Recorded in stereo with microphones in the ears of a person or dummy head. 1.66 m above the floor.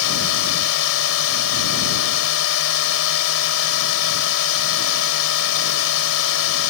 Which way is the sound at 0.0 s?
80° left.